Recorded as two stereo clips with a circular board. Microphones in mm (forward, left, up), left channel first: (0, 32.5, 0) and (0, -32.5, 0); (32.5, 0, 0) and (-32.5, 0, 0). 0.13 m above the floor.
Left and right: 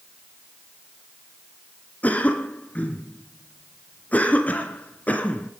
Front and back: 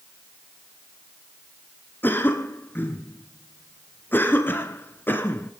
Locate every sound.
2.0 s a cough: 40° left, 1.6 m